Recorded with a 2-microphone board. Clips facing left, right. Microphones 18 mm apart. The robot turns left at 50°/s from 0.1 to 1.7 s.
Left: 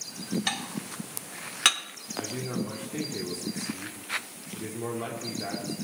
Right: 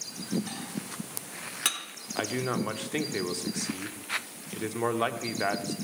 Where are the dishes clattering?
65° left (ahead or behind), 1.0 m; by 1.8 s 30° left (ahead or behind), 1.0 m.